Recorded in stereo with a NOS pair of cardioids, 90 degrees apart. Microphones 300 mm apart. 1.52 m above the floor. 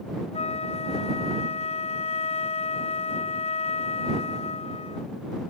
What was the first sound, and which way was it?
A flute, 20° left.